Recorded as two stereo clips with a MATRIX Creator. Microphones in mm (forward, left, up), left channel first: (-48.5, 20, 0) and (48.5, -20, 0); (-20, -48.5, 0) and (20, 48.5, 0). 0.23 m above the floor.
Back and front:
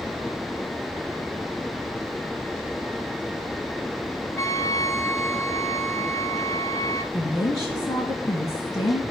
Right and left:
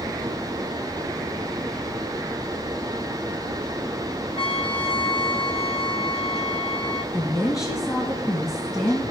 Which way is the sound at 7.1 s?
160° right.